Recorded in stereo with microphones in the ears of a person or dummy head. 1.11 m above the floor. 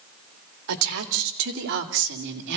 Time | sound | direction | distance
0.7 | a woman speaking | 80° right | 2 m